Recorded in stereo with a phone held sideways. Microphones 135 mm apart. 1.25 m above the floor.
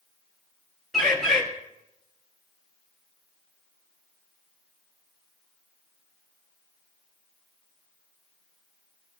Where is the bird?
Centre (ahead or behind), 4 m.